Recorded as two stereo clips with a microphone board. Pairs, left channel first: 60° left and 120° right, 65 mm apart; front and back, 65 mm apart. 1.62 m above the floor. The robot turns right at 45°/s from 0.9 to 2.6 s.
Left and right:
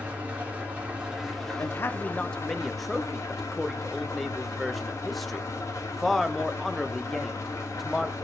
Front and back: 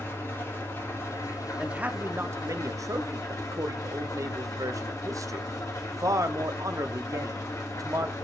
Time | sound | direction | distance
0.0 | an engine running | 50° right | 1.9 m
1.6 | a man speaking | 105° left | 0.7 m